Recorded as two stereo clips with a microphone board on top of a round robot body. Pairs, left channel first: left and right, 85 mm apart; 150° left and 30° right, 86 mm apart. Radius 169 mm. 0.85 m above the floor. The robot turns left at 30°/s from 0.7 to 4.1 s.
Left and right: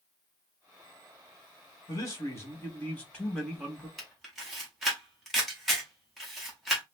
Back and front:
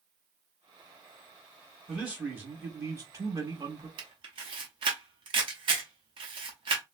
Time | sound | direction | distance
1.9 | a man speaking | 50° left | 1.7 m
4.0 | a camera shutter | straight ahead | 0.8 m